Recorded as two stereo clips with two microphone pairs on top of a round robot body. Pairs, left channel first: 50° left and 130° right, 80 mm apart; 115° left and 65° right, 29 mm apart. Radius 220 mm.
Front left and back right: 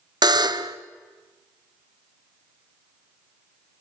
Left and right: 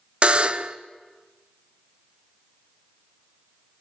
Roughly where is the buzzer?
Behind right.